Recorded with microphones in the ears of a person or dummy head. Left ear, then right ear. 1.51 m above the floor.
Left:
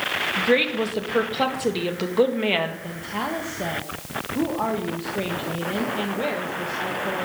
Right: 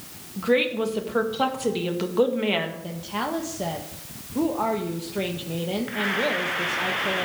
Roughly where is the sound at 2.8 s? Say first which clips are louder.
Left 1 dB; centre.